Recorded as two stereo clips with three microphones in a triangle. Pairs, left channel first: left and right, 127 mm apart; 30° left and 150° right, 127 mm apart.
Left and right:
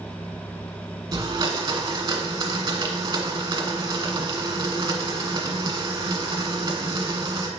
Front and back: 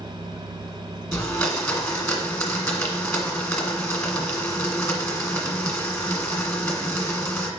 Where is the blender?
40° right, 1.3 m.